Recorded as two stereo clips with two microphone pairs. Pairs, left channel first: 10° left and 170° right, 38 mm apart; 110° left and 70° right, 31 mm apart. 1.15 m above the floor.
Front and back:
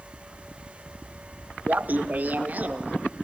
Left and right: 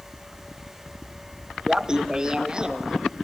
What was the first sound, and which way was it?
Laughter, 135° right.